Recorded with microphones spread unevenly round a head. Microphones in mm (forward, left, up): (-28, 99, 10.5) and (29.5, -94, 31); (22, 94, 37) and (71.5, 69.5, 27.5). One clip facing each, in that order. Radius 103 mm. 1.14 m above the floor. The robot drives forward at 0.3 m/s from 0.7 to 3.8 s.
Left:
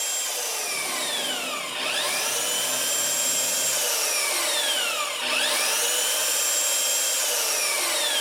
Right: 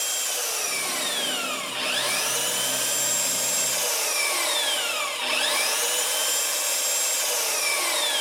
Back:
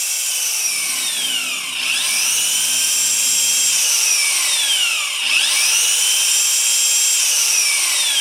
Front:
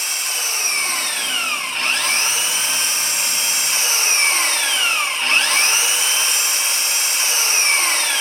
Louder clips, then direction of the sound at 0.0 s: Even, front 3 dB; 15° left.